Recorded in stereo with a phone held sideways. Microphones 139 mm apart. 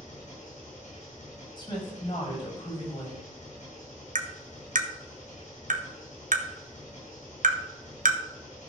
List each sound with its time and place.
0.0 s an engine running: 60° left (ahead or behind), 6 m
1.6 s a woman speaking: 35° left (ahead or behind), 6 m
4.2 s tapping: 70° right (ahead or behind), 1.1 m